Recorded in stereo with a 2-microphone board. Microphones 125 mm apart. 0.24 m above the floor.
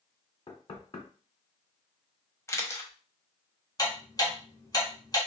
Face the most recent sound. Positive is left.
turn(degrees=30)  # may be behind; listen again after turning